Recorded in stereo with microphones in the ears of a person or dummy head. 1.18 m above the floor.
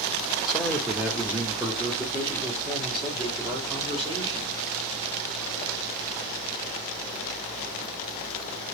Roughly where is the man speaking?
Centre.